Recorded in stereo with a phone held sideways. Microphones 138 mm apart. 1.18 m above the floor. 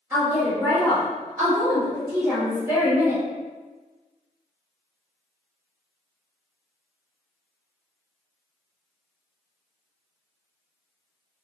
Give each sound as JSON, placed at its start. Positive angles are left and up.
{"t": 0.1, "sound": "a woman speaking", "side_deg": -15, "distance_m": 1.1}